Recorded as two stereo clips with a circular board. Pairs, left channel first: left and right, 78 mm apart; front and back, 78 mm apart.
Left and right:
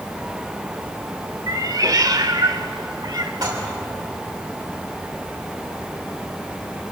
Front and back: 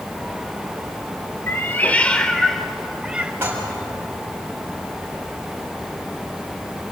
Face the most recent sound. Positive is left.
turn(degrees=-120)